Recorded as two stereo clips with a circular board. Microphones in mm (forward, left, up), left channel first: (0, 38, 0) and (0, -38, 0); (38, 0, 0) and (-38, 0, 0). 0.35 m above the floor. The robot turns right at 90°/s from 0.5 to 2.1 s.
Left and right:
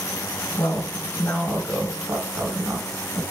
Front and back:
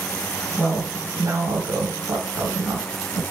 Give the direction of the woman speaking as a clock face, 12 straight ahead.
9 o'clock.